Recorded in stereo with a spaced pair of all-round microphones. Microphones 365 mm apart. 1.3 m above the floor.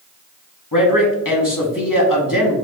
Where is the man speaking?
60° left (ahead or behind), 1.0 m.